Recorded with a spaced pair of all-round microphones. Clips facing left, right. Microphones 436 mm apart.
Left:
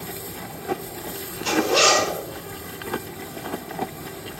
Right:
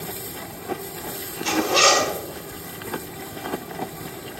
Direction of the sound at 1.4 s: 40° right (ahead or behind).